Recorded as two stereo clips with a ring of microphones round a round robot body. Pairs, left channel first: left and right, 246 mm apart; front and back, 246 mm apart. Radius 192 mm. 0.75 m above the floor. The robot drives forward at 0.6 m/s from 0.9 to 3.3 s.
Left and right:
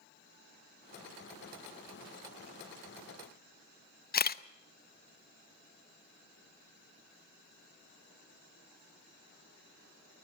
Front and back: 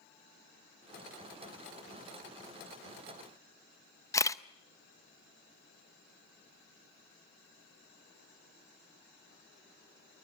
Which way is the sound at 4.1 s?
70° left.